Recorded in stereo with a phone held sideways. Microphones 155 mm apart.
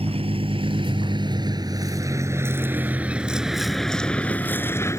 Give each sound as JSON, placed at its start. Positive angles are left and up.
{"t": 0.0, "sound": "a vehicle", "side_deg": -40}